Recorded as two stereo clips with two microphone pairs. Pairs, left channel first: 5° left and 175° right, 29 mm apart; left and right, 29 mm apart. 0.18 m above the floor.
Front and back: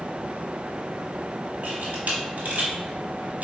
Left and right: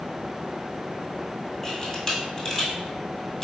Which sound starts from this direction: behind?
A camera shutter, at 1.6 s.